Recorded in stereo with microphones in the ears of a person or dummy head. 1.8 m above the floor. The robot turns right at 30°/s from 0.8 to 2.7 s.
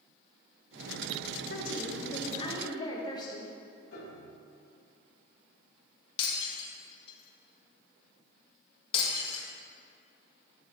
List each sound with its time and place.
1.5 s a woman speaking: 120° left, 1.4 m; by 3.5 s 155° left, 1.4 m
3.9 s a piano: 85° left, 3 m
6.2 s breaking glass: 35° left (ahead or behind), 2.0 m